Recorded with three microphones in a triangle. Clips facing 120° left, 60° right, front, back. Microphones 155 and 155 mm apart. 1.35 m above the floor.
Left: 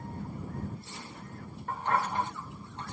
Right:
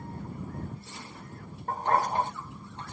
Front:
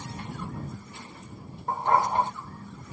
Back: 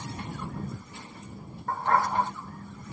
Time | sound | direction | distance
1.7 | a dog barking | 60° right | ?